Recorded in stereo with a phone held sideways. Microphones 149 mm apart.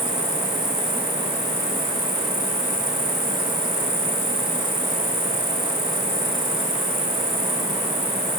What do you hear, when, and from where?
0.0 s an insect: 75° right (ahead or behind), 6 m